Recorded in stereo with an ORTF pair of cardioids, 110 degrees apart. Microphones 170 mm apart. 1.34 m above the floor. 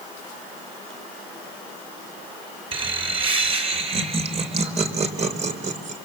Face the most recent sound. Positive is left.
turn(degrees=-45)